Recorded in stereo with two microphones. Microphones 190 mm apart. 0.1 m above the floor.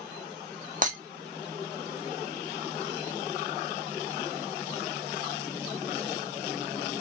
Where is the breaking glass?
45° right (ahead or behind), 0.9 m.